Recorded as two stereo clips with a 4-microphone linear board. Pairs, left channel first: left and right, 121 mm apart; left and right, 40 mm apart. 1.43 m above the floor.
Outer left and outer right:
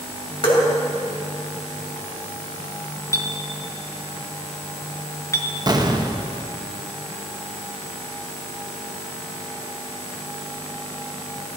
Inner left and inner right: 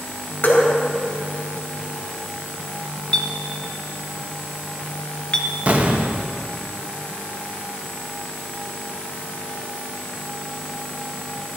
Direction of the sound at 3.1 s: 25° left (ahead or behind).